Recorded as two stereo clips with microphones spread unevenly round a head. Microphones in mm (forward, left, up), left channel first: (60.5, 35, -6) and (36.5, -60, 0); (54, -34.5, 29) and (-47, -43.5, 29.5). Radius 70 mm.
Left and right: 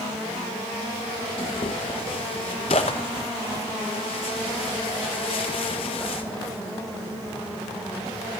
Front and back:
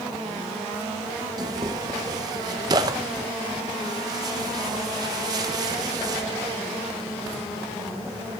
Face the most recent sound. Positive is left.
turn(degrees=125)